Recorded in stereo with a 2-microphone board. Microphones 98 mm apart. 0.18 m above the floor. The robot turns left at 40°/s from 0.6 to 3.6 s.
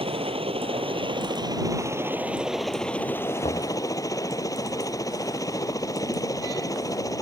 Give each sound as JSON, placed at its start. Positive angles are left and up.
{"t": 0.0, "sound": "a helicopter", "azimuth_deg": -100}
{"t": 3.4, "sound": "knocking", "side_deg": 75}